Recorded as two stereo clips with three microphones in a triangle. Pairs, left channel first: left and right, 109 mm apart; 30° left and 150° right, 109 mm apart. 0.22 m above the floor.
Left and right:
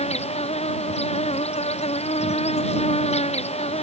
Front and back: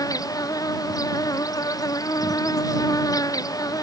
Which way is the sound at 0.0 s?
85° left.